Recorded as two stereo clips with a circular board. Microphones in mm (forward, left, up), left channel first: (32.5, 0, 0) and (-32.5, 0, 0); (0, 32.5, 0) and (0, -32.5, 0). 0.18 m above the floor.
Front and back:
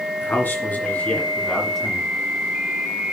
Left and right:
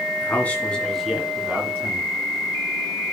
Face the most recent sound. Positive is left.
turn(degrees=-90)